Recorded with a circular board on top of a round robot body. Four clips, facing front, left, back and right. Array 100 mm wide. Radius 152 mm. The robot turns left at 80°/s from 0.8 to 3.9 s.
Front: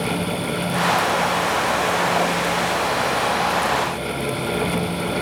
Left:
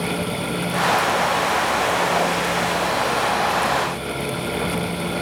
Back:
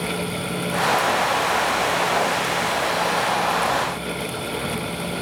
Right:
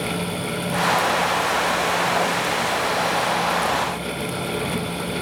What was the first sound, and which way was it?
Only background noise.